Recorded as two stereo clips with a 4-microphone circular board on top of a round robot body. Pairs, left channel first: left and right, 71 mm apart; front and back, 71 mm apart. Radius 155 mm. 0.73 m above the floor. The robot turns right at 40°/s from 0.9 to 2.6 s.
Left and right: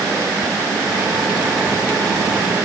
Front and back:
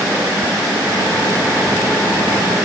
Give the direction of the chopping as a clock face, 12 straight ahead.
No chopping in this recording.